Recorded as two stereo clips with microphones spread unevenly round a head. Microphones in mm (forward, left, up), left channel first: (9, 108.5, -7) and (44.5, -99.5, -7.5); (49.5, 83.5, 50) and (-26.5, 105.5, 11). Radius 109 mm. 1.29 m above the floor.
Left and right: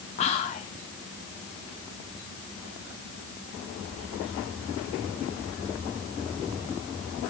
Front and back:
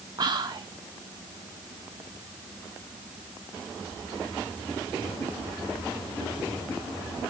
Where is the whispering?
165° left, 0.5 m.